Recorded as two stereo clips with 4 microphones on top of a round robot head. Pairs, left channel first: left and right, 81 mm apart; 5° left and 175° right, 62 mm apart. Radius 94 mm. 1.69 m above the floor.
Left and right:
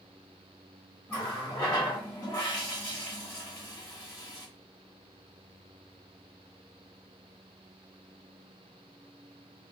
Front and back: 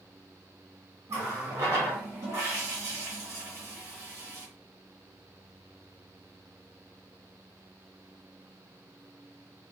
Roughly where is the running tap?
Behind left.